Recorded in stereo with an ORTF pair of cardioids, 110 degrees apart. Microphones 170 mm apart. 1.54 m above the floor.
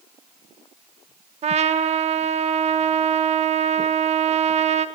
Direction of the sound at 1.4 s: 40° right.